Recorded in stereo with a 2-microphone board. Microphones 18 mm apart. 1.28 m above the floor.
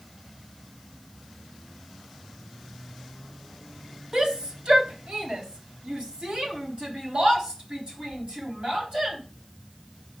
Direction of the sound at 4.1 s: 60° right (ahead or behind).